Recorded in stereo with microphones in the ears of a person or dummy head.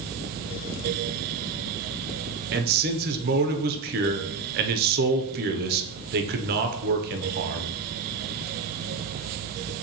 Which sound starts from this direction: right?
A man speaking, at 2.5 s.